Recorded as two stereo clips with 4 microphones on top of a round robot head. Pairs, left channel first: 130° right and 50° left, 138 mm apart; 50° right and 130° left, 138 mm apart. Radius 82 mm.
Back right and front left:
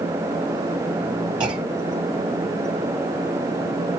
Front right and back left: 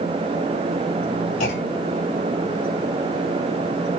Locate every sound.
1.4 s a clunk: 10° right, 1.8 m